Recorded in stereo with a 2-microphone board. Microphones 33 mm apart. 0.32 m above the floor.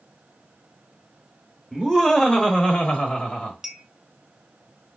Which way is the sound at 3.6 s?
15° right (ahead or behind).